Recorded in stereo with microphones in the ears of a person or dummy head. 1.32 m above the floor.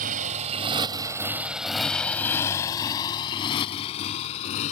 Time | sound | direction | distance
0.0 | a motorcycle | 50° right (ahead or behind) | ?